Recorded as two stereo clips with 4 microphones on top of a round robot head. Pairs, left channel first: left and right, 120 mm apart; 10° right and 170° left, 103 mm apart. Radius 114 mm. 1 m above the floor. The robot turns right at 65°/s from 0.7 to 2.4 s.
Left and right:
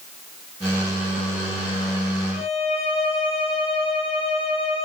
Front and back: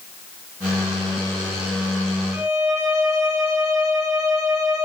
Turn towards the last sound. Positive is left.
turn(degrees=115)